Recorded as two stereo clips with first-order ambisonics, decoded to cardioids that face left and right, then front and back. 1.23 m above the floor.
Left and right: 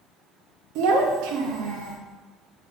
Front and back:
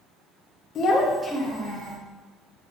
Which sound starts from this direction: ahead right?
A child speaking, at 0.8 s.